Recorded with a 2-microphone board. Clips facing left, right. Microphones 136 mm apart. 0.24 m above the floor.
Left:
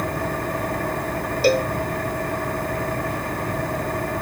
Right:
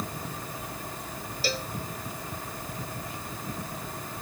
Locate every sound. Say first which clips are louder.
0.0 s an engine running: left 12 dB; 75° left (ahead or behind)
1.4 s a cowbell: left 15 dB; 55° left (ahead or behind)